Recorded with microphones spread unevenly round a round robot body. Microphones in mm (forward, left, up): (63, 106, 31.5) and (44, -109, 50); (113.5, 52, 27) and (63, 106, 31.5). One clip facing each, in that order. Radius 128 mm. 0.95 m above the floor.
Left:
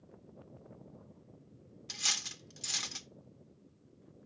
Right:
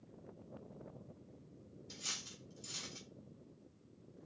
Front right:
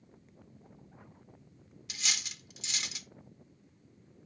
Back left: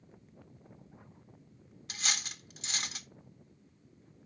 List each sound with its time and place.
1.9 s cutlery clinking: 85° left, 0.9 m